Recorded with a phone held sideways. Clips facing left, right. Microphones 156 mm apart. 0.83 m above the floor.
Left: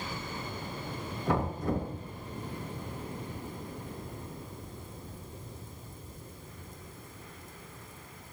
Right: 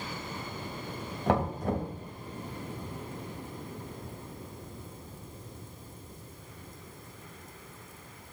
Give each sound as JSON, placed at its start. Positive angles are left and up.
{"t": 1.3, "sound": "knocking", "side_deg": -90, "distance_m": 3.5}